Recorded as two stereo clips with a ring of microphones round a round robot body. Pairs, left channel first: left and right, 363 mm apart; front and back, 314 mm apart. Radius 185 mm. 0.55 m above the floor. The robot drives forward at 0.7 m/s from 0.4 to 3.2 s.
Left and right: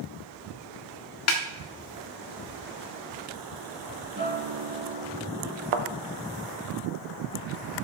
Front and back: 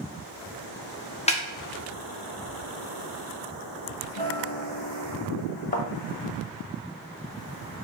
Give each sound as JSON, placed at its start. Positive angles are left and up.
{"t": 1.3, "sound": "a snare drum", "azimuth_deg": 65, "distance_m": 1.3}
{"t": 4.2, "sound": "a guitar", "azimuth_deg": -35, "distance_m": 3.5}
{"t": 5.7, "sound": "a thud", "azimuth_deg": -70, "distance_m": 0.8}